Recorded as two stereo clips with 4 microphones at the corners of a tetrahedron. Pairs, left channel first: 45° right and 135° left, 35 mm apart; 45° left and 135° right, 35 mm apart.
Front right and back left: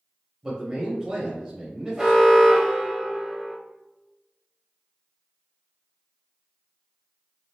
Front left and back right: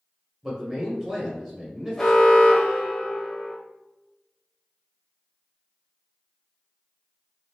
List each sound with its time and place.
0.4 s a man speaking: 170° left, 0.9 m
2.0 s an alarm: 95° left, 0.9 m